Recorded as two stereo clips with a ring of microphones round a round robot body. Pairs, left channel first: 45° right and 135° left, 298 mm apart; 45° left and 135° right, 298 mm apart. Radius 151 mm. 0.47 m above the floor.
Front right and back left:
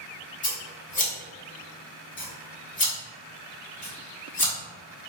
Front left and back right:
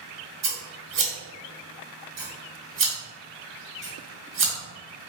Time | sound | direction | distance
0.4 | scissors | 100° right | 1.7 m